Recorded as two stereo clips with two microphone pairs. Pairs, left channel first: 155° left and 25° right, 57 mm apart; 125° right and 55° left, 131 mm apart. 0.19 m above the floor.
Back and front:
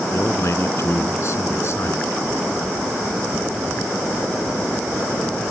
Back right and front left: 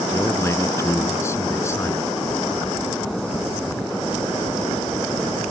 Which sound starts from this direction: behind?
A man speaking, at 0.1 s.